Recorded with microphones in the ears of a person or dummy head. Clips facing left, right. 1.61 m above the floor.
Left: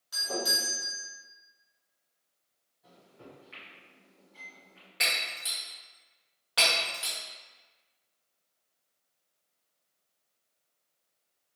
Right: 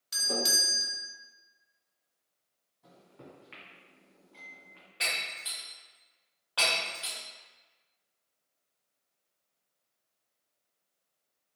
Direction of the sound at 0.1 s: 30° right (ahead or behind).